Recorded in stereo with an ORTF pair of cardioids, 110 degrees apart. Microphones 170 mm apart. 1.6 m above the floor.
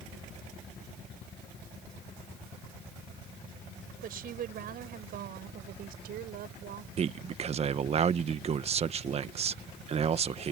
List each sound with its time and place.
4.0 s a woman speaking: 60° right; by 6.9 s 70° right
7.0 s a man speaking: 40° right